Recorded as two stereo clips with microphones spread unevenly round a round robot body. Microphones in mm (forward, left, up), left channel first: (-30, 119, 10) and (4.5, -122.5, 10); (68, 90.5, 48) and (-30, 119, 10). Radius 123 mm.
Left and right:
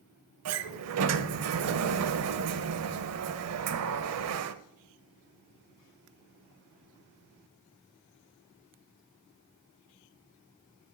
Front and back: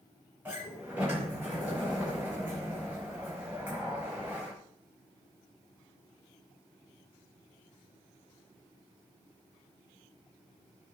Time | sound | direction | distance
0.5 | a sliding door | 110° right | 0.8 m